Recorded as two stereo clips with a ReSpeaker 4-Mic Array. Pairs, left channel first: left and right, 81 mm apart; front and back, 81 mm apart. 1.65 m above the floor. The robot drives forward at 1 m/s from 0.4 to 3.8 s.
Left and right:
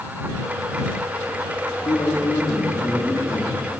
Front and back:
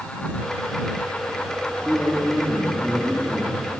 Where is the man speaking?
80° left, 5 m; by 3.5 s 100° left, 5 m.